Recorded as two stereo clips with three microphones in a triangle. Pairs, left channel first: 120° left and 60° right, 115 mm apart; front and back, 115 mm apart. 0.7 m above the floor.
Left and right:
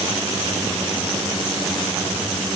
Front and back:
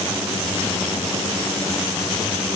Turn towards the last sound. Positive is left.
No sound to turn to.